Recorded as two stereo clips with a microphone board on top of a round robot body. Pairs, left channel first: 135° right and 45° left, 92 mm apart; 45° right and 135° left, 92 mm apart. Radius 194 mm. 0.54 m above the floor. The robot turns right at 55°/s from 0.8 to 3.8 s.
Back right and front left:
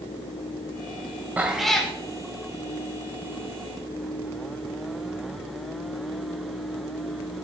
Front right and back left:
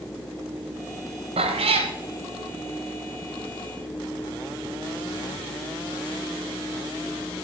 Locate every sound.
1.4 s a cat meowing: 120° left, 0.6 m; by 1.9 s 150° left, 0.6 m